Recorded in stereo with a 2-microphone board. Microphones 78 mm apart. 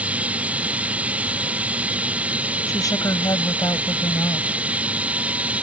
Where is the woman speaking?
55° left (ahead or behind).